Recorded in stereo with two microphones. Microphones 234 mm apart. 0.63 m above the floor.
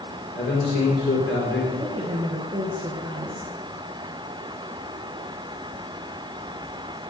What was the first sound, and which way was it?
A man speaking, 65° left (ahead or behind).